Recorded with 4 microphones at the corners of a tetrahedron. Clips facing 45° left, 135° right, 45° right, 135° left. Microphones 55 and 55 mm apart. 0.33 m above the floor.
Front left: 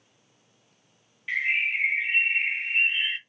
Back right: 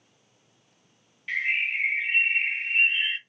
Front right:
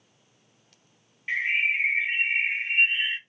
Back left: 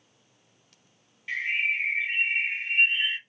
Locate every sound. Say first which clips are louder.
1.3 s a bird: front left 1 dB, front right 2 dB; 30° right, 0.9 m